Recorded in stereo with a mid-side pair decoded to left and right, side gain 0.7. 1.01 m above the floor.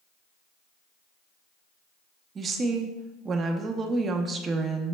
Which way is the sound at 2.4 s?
30° right.